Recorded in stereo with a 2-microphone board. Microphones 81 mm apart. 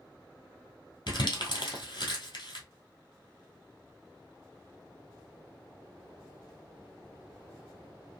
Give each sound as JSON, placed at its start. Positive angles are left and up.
{"t": 1.1, "sound": "crumpling", "side_deg": 65, "distance_m": 1.8}